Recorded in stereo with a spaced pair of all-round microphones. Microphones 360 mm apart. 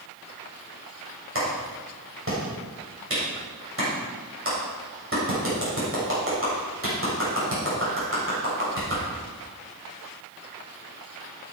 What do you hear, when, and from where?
1.4 s a clap: 35° right (ahead or behind), 7 m